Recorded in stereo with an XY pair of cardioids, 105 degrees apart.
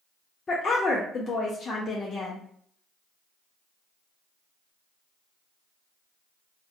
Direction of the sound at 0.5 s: 40° left.